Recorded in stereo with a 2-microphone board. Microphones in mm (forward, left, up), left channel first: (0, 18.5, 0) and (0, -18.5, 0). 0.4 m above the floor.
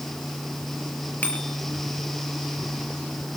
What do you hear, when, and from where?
1.2 s a bicycle bell: 45° left (ahead or behind), 5.5 m